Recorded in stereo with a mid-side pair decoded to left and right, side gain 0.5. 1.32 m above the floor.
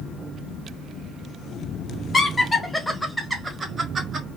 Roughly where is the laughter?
Ahead left.